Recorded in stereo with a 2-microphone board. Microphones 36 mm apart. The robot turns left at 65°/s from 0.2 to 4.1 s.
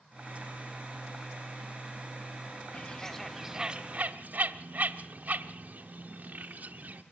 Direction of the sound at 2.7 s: 30° left (ahead or behind).